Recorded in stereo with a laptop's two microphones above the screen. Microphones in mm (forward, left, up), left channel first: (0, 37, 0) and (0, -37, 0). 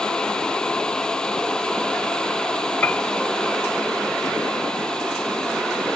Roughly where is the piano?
Left.